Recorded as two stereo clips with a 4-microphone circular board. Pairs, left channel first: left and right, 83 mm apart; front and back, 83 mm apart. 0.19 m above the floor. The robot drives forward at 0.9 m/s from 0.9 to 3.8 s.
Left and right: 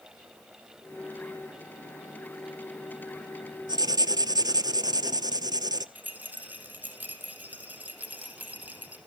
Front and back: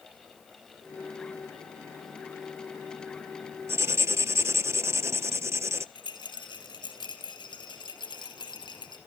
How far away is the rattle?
About 3.5 m.